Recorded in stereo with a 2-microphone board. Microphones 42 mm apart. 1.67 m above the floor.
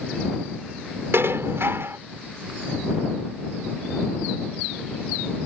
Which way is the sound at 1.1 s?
75° right (ahead or behind).